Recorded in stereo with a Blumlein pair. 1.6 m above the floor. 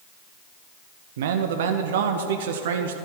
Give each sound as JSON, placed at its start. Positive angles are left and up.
{"t": 1.2, "sound": "a man speaking", "azimuth_deg": -55, "distance_m": 0.7}